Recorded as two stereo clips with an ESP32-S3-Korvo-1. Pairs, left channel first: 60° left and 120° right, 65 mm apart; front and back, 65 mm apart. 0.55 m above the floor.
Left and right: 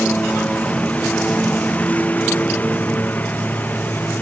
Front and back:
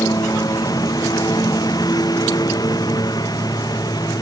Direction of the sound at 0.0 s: 10° right.